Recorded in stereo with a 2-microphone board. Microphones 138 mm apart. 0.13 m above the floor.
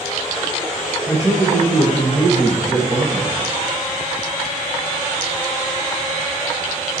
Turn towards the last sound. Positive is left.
turn(degrees=-25)  # may be behind; listen again after turning